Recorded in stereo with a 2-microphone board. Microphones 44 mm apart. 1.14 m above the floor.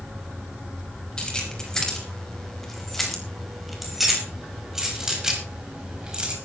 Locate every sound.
1.2 s keys jangling: 15° left (ahead or behind), 5.5 m; by 6.3 s 20° right (ahead or behind), 5.5 m